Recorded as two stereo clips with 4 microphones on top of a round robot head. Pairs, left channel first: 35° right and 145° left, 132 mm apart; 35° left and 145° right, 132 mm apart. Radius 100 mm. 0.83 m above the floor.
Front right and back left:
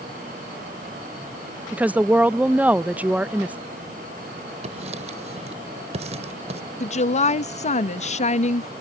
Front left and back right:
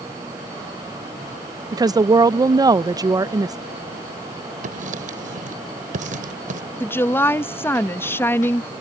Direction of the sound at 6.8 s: 35° right.